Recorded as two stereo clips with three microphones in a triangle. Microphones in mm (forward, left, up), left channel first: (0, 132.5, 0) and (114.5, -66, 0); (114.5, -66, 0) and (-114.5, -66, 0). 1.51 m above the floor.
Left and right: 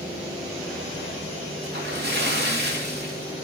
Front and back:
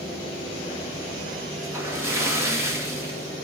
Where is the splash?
100° right, 2.5 m.